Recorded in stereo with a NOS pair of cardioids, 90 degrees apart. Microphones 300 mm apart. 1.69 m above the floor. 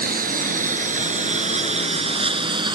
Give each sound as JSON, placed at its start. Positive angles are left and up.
{"t": 0.0, "sound": "a lawn mower", "azimuth_deg": -30}